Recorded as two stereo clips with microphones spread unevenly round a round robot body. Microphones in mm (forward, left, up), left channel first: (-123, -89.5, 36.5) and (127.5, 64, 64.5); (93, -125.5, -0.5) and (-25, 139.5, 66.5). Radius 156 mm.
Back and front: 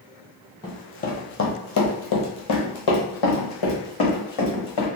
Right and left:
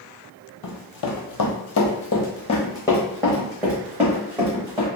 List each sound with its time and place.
0.6 s running footsteps: 70° right, 1.0 m; by 4.9 s 175° right, 2 m